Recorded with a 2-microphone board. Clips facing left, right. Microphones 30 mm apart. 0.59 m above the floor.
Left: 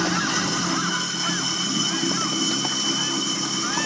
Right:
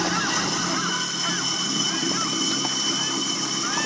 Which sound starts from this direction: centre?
Running water, at 0.0 s.